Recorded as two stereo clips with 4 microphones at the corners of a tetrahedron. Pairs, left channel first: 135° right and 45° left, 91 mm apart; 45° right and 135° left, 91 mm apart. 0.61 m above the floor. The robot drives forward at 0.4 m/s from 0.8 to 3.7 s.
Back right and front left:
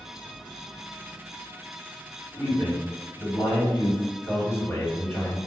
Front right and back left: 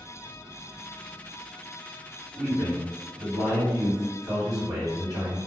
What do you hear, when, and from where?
2.3 s a man speaking: 155° left, 1.6 m; by 5.4 s 160° left, 2 m